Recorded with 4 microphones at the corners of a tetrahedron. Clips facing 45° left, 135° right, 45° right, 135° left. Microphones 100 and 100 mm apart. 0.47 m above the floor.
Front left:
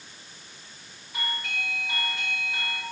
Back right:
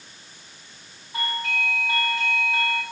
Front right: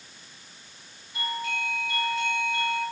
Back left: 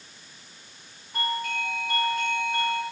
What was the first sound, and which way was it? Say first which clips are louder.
A doorbell: back right 6 dB, back left 2 dB; 170° left.